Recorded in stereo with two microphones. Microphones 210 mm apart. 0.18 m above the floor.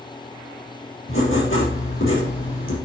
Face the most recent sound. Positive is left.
turn(degrees=75)  # may be behind; listen again after turning